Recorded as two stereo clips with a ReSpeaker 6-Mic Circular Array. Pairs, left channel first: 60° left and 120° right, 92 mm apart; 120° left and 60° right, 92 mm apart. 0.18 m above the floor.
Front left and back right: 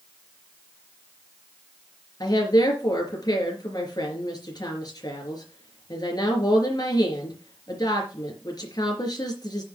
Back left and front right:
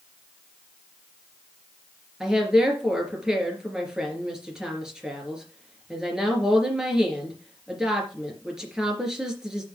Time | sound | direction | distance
2.2 | a woman speaking | 25° left | 3.5 m